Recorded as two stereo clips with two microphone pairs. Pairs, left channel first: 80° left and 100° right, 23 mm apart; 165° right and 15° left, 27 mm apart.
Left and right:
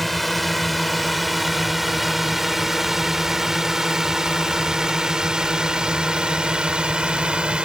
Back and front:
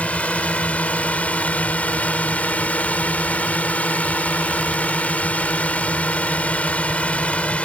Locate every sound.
0.0 s a drone: 165° left; by 7.7 s 145° right